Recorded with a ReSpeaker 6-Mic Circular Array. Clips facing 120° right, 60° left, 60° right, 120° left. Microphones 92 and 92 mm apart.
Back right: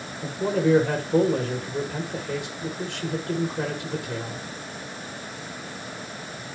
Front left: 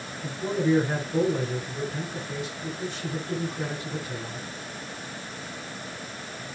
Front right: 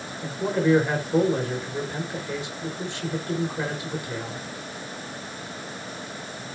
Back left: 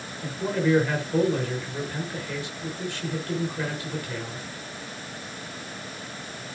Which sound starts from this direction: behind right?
A man speaking, at 0.2 s.